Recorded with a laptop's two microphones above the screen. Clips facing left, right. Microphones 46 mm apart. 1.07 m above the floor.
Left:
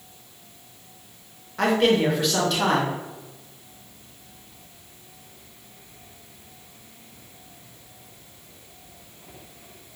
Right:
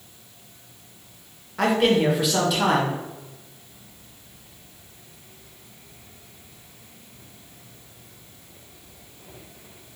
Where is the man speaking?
Centre (ahead or behind), 0.7 m.